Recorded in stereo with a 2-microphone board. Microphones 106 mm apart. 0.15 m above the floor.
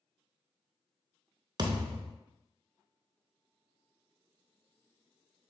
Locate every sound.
1.6 s a thud: 45° right (ahead or behind), 0.7 m